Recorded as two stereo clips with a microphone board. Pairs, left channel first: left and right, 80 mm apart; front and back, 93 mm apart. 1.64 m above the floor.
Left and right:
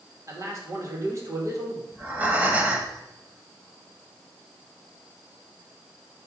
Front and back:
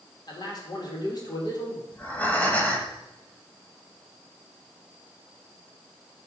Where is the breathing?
50° right, 1.5 m.